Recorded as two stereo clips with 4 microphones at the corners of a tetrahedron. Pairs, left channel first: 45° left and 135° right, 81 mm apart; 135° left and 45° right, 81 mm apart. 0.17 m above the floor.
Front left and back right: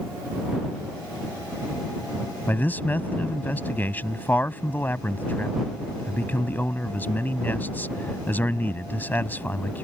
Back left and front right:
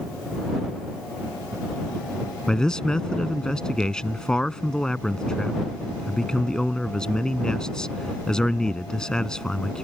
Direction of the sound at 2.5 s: 70° left.